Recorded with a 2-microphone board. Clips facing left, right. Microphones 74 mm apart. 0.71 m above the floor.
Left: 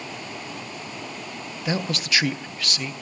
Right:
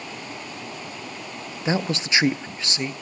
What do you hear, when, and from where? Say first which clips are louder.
1.6 s a man speaking: right 3 dB; 25° right (ahead or behind), 0.5 m